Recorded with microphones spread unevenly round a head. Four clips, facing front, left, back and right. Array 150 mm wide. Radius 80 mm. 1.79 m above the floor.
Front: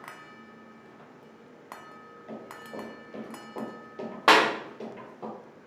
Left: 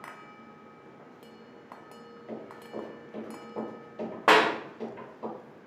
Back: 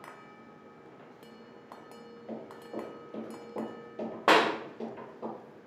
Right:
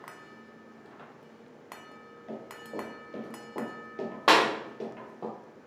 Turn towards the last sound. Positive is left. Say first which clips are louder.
# left 1 dB, front 3 dB
turn(degrees=35)